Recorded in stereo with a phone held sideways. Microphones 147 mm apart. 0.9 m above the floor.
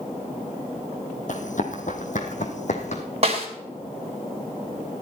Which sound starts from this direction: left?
Running footsteps, at 1.3 s.